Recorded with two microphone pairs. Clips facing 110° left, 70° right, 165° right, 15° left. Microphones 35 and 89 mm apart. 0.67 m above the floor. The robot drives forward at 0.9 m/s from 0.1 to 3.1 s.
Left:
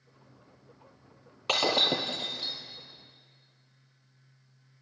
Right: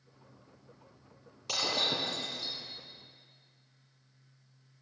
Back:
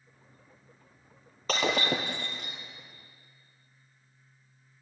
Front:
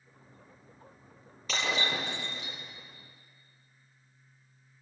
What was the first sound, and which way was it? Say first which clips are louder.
Breaking glass: left 6 dB, back 4 dB; 155° left.